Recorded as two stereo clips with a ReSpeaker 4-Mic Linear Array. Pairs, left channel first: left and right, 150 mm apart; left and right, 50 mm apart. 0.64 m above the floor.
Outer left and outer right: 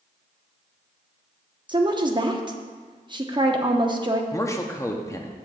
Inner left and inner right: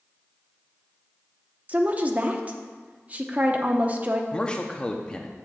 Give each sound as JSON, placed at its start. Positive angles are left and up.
{"t": 1.7, "sound": "a woman speaking", "side_deg": -30, "distance_m": 0.8}
{"t": 4.3, "sound": "a man speaking", "side_deg": 20, "distance_m": 0.7}